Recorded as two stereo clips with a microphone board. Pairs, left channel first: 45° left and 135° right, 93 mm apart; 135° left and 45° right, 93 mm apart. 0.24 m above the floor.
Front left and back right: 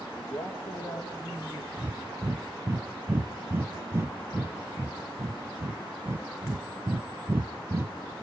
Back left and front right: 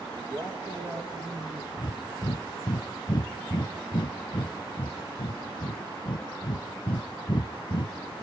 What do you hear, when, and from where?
0.2 s a man speaking: 5° right, 4.5 m
1.8 s breathing: 165° left, 0.8 m